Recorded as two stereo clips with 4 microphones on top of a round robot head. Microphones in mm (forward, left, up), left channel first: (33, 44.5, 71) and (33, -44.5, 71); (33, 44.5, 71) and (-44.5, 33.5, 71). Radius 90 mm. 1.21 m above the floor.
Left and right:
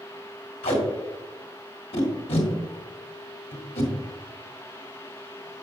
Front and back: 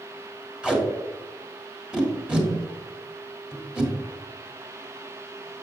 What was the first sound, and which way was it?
Tape being pulled, 105° left.